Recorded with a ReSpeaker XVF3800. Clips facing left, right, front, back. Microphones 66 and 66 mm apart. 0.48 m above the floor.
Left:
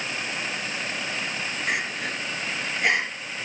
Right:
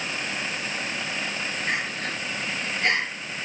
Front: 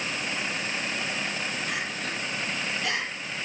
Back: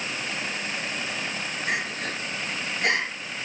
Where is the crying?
170° left, 3.5 m.